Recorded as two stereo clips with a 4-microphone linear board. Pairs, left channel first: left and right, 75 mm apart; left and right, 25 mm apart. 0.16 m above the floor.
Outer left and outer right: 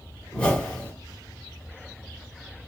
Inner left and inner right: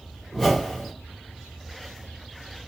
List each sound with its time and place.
0.3 s a whoosh: 20° left (ahead or behind), 1.4 m